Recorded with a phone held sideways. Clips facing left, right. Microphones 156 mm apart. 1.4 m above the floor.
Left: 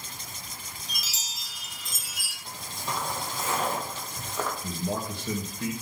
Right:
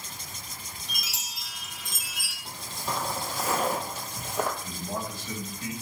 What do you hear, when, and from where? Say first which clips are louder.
0.9 s a chime: right 1 dB; 75° right (ahead or behind), 1.4 m
2.5 s footsteps: right 1 dB; 5° right (ahead or behind), 3 m; by 4.5 s 15° right (ahead or behind), 2 m
4.6 s a man speaking: left 3 dB; 75° left (ahead or behind), 1.8 m